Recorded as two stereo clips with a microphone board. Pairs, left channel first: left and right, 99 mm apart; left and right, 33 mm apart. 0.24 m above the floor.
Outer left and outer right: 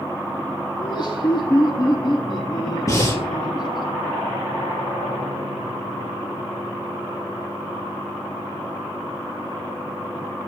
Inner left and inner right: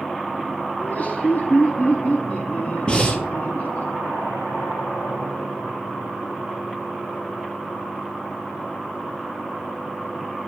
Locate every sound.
0.8 s laughter: 50° left (ahead or behind), 7.5 m
2.9 s breathing: 35° left (ahead or behind), 2.5 m